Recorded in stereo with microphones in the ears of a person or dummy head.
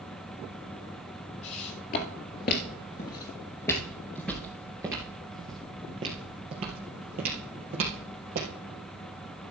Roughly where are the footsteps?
Left.